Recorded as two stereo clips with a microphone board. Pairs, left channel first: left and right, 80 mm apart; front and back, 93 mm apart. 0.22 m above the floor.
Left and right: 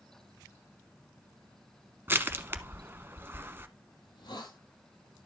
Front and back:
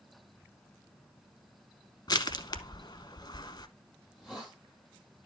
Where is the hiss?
90° left, 9.5 m.